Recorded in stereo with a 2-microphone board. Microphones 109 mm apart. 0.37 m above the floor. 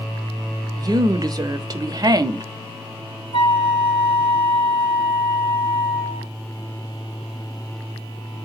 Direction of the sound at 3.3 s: 60° left (ahead or behind).